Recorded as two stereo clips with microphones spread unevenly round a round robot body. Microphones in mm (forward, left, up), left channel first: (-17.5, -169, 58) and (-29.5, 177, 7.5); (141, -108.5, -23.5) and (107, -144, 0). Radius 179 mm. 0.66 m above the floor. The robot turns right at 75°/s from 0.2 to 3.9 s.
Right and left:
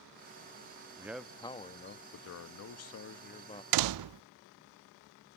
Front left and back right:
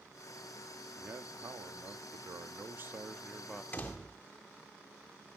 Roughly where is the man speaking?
Behind left.